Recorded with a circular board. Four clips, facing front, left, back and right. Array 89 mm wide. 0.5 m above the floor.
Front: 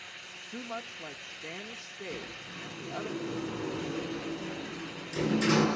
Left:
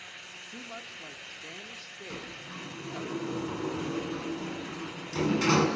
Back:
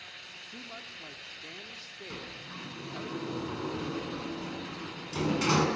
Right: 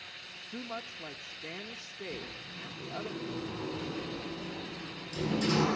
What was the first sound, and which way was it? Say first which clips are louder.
A woman speaking: right 4 dB, front 8 dB; 35° right.